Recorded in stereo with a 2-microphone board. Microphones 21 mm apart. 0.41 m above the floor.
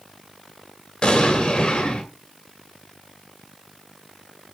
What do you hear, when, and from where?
1.0 s an explosion: 50° left (ahead or behind), 2 m